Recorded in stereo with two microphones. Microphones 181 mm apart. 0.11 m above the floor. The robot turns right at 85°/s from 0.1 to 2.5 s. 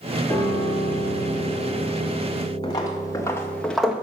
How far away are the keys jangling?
No keys jangling in this recording.